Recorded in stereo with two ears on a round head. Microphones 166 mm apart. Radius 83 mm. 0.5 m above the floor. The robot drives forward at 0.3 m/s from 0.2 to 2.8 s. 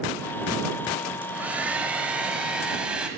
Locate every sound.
1.2 s a hair dryer: 10° right (ahead or behind), 0.7 m; by 3.1 s 5° right (ahead or behind), 1.2 m